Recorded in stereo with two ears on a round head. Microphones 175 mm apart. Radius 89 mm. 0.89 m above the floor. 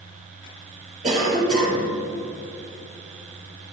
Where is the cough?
35° right (ahead or behind), 4.5 m.